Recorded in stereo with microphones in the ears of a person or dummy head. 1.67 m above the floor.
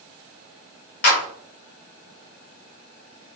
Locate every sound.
1.0 s a clap: 45° left (ahead or behind), 0.9 m